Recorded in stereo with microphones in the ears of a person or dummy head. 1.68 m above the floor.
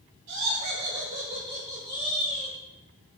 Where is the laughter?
85° right, 1.5 m; by 2.6 s 20° left (ahead or behind), 1.9 m.